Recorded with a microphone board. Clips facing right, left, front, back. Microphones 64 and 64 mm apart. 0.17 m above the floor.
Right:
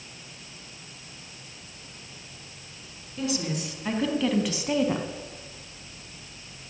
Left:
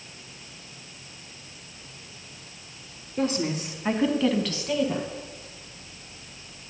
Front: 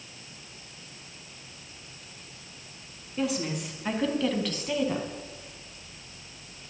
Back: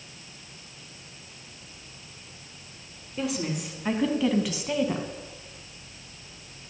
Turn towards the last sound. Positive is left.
turn(degrees=-110)